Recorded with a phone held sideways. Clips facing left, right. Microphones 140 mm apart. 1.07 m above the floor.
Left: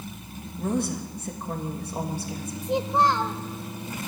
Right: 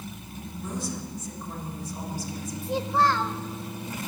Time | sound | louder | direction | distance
0.6 | a woman speaking | left 7 dB | 65° left (ahead or behind) | 1.7 m
2.6 | a child speaking | left 2 dB | 20° left (ahead or behind) | 0.9 m